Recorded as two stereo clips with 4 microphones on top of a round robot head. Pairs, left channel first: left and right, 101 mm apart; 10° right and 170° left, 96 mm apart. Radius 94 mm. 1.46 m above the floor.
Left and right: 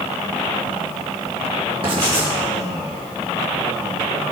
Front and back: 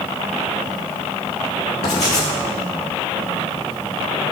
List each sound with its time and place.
1.8 s writing: 30° right, 4 m